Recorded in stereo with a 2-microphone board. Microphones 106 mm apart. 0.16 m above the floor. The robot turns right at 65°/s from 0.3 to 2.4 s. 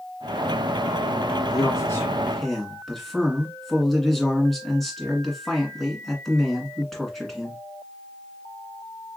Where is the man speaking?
120° left, 1.6 m; by 7.6 s 175° left, 1.6 m.